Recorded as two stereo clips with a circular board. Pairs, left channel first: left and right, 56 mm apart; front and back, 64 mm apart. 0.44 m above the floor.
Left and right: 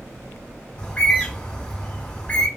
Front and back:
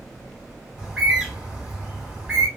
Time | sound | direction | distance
0.8 | a bird | 120° left | 1.0 m